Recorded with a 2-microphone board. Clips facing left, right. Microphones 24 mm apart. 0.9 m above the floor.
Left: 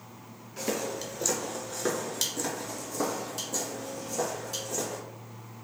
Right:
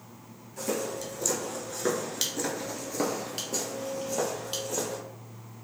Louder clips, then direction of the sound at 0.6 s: Even; 30° left (ahead or behind).